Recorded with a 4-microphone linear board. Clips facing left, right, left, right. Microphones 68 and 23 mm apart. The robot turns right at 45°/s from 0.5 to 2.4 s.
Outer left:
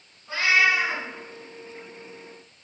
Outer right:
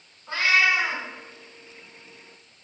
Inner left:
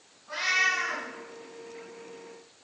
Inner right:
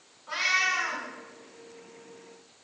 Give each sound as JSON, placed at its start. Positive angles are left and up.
{"t": 0.3, "sound": "a cat meowing", "side_deg": -60, "distance_m": 1.6}